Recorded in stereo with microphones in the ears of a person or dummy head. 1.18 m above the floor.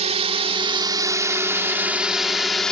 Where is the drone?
35° right (ahead or behind); by 2.7 s 5° left (ahead or behind).